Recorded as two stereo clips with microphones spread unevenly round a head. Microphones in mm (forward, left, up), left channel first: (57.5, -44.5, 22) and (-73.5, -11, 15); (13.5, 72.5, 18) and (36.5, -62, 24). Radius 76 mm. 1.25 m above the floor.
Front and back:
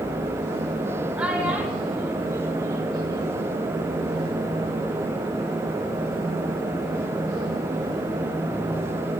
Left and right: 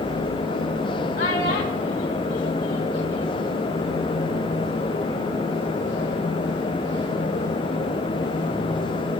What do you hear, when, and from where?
1.2 s a child speaking: 85° left, 3 m; by 3.5 s 105° left, 2.5 m